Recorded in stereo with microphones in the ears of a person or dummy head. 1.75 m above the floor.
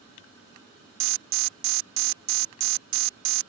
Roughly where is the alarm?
Right.